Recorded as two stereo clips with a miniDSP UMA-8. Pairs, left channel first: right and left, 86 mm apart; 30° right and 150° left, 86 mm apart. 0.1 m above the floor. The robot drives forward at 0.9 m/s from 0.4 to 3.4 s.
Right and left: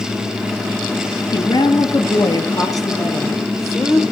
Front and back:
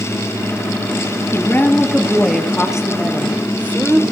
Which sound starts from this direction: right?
A woman speaking, at 1.3 s.